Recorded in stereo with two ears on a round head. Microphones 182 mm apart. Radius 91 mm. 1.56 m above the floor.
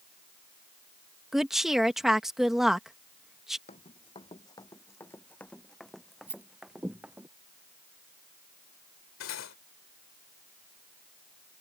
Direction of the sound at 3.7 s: 30° left (ahead or behind).